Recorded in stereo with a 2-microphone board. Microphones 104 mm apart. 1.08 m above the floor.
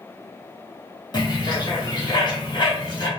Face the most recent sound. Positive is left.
turn(degrees=45)  # may be behind; listen again after turning